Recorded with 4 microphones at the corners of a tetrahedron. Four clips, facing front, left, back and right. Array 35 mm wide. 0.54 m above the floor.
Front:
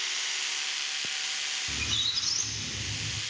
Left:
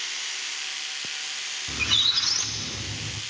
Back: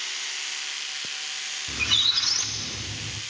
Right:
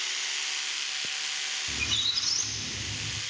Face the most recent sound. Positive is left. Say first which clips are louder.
# left 7 dB, back 9 dB
turn(degrees=135)